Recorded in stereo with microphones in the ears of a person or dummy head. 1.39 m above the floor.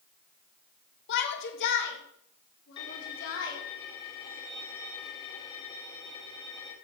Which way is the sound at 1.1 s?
60° left (ahead or behind).